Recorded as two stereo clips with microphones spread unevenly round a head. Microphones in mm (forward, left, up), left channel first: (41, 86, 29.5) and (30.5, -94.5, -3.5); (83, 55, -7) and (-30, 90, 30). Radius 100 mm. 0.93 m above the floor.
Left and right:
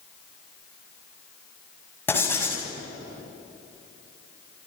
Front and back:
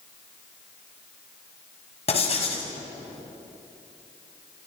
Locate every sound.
2.1 s writing: 10° left, 6.5 m